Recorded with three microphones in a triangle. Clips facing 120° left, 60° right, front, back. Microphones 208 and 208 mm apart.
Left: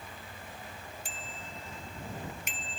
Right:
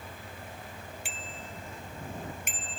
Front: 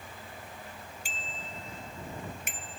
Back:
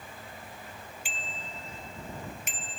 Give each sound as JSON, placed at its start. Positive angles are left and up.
{"t": 1.1, "sound": "a bicycle bell", "azimuth_deg": -45}